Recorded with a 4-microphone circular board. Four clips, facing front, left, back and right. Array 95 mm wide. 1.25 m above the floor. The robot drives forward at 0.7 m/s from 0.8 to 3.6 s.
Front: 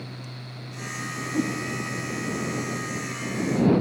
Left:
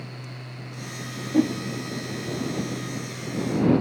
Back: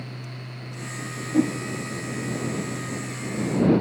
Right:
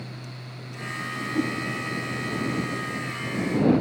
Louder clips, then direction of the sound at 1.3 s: Left 6 dB, back 5 dB; 125° left.